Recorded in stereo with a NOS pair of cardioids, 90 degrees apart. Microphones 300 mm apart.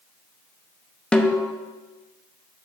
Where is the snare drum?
5° left, 0.6 m.